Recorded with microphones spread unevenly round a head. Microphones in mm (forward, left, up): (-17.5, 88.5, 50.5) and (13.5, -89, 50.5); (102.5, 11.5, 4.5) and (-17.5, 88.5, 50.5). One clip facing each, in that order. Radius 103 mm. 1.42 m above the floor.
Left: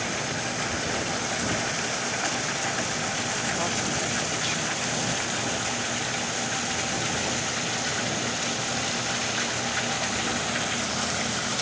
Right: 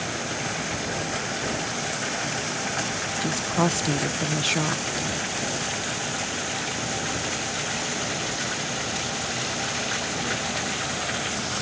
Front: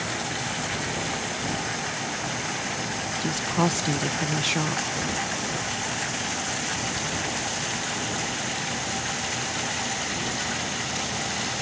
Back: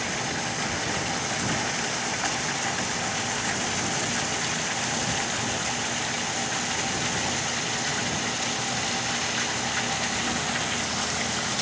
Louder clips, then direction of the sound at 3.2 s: Right 10 dB, front 6 dB; 50° right.